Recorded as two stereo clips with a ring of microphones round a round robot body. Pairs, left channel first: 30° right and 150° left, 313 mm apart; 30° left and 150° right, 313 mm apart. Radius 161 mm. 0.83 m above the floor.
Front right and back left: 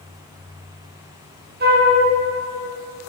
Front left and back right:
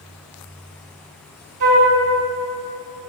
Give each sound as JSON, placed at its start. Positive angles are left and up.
{"t": 1.6, "sound": "a flute", "azimuth_deg": -150, "distance_m": 3.0}